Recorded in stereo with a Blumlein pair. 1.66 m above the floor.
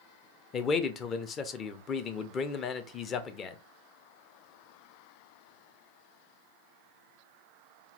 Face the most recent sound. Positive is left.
turn(degrees=25)